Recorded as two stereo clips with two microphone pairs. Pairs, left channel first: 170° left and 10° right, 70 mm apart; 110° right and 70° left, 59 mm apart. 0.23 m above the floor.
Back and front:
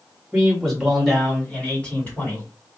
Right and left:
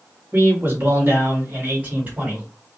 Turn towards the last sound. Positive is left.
turn(degrees=125)